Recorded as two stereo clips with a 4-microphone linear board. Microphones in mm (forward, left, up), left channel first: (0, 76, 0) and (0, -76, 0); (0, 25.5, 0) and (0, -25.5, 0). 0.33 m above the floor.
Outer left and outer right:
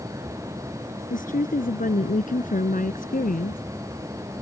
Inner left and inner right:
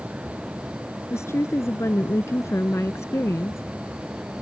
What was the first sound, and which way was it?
A woman speaking, 65° left (ahead or behind).